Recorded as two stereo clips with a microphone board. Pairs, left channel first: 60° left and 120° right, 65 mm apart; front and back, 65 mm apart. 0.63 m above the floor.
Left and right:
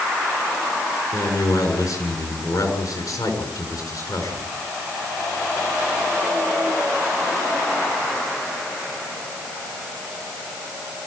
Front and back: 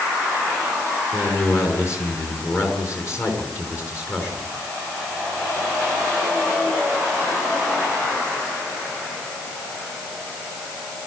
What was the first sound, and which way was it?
A man speaking, 45° left.